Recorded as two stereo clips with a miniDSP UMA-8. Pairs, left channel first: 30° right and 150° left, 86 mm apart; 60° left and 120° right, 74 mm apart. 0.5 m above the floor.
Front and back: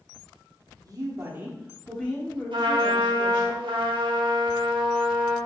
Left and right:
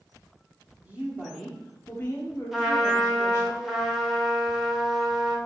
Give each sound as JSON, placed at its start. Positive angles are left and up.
{"t": 0.8, "sound": "a woman speaking", "azimuth_deg": 175, "distance_m": 1.0}
{"t": 2.5, "sound": "a trumpet", "azimuth_deg": 155, "distance_m": 0.7}